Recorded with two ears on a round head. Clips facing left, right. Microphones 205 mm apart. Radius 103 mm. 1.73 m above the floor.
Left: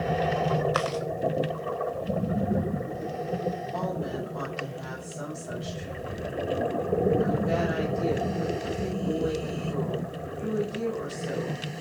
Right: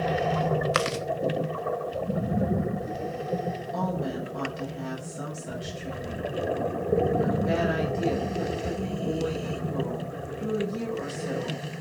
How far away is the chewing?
About 1.2 m.